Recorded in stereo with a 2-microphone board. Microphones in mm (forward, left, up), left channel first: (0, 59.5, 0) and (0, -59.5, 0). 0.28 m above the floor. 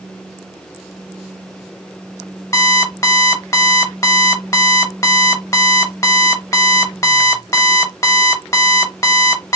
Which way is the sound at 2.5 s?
25° left (ahead or behind).